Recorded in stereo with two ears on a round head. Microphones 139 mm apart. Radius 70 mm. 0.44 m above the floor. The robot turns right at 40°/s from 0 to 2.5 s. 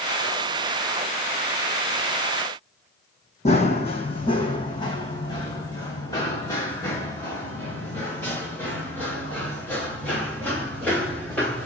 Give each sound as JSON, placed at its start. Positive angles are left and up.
{"t": 3.5, "sound": "running footsteps", "side_deg": 45, "distance_m": 1.5}